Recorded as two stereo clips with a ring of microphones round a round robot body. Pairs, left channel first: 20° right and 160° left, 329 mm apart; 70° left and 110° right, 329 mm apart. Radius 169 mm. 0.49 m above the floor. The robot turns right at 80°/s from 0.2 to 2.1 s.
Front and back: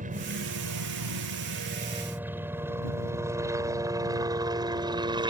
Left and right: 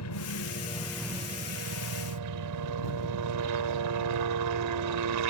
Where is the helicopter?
95° left; by 5.3 s 130° right.